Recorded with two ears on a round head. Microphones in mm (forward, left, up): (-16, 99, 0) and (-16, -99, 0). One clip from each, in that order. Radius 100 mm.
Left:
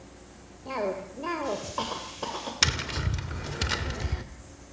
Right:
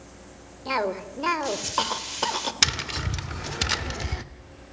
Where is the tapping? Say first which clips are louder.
Right 2 dB; 20° right (ahead or behind), 0.9 m.